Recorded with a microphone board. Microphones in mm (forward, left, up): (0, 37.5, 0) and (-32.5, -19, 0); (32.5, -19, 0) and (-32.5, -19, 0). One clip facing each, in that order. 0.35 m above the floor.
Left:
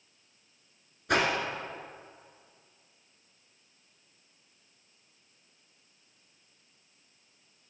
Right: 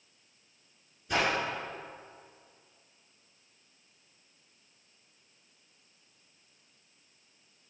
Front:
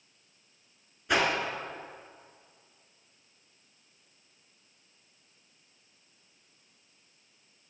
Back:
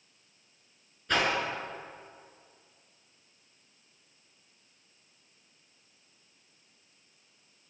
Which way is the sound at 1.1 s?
80° left.